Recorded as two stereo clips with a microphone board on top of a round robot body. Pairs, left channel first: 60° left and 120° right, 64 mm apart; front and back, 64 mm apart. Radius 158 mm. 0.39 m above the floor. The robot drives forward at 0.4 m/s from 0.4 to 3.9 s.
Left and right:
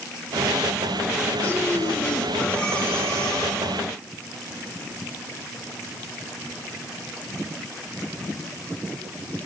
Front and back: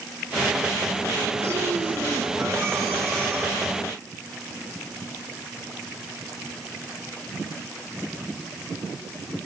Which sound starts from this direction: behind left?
Breathing, at 1.4 s.